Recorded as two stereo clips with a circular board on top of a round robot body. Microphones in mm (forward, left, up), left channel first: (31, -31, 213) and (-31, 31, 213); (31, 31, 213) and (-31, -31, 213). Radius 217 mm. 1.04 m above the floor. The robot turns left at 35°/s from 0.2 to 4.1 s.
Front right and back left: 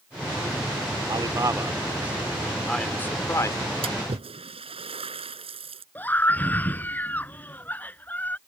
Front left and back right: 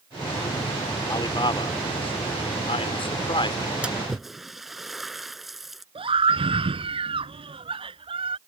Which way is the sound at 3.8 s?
145° left.